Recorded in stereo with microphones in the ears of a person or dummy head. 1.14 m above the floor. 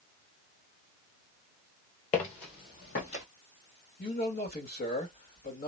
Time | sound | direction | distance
2.1 | footsteps | 40° left (ahead or behind) | 1.4 m
4.0 | a man speaking | 50° left (ahead or behind) | 2 m